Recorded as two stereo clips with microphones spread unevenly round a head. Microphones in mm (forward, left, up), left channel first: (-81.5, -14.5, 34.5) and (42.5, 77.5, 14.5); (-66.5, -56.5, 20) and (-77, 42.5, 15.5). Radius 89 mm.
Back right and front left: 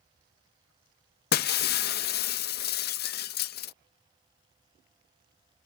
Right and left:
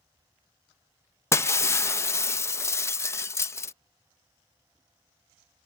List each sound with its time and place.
1.3 s breaking glass: 145° right